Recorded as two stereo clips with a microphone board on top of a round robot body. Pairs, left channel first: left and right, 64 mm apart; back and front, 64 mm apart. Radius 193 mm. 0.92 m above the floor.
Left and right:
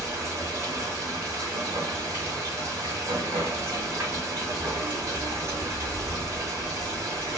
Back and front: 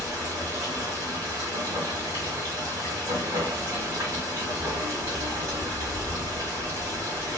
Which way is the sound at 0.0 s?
35° right.